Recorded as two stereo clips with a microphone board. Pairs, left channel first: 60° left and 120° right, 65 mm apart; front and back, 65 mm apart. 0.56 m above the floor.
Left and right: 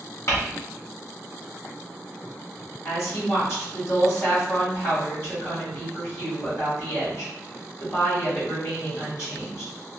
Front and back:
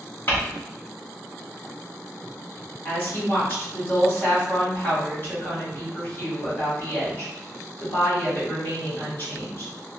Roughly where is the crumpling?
Ahead left.